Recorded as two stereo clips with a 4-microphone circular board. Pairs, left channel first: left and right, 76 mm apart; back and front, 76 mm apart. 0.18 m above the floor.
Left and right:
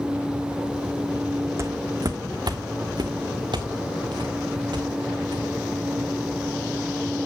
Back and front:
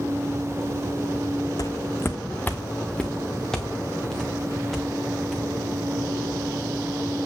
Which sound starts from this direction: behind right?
Footsteps, at 1.6 s.